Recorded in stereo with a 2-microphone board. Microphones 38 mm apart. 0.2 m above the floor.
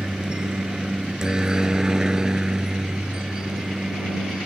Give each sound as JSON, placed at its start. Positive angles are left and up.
{"t": 0.0, "sound": "a helicopter", "side_deg": -15}